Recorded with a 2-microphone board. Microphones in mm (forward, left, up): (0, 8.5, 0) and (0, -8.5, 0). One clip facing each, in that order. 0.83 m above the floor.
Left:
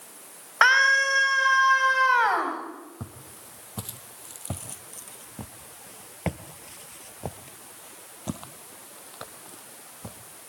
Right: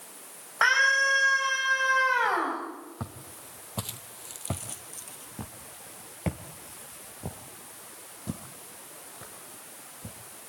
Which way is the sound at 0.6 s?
35° left (ahead or behind).